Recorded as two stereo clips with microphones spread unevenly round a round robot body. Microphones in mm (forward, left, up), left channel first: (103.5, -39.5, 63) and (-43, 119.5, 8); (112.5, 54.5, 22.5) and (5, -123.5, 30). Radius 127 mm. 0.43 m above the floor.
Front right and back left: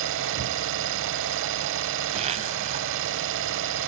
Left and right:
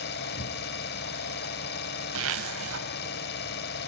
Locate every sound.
0.0 s an engine running: 110° left, 0.8 m
2.1 s a zipper: 160° right, 0.8 m